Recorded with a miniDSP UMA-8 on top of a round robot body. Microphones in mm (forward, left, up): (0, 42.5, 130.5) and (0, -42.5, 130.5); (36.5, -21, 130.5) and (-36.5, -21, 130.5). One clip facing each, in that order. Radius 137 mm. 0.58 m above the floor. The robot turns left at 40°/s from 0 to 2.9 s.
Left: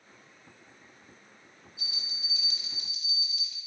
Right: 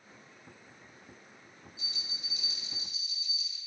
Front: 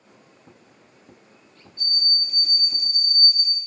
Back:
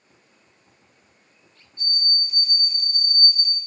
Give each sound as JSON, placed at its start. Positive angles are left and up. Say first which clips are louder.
{"t": 1.8, "sound": "a bell", "louder": "left 4 dB, back 1 dB", "azimuth_deg": 125, "distance_m": 0.7}